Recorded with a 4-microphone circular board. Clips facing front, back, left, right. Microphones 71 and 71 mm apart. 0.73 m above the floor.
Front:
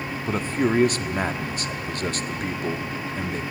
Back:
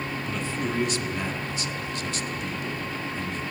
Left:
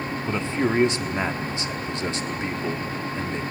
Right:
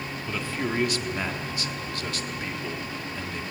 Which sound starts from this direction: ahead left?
A man speaking, at 0.3 s.